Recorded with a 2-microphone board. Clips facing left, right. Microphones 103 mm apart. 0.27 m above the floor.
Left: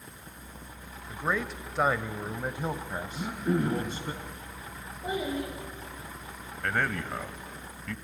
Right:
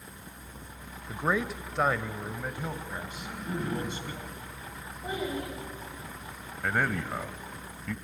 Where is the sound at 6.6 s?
5° right (ahead or behind), 1.2 m.